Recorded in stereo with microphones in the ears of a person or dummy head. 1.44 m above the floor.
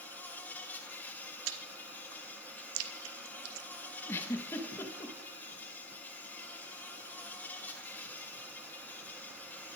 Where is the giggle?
15° left (ahead or behind), 1.5 m.